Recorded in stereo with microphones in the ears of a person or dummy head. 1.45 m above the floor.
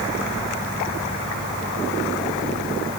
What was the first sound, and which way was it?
Only background noise.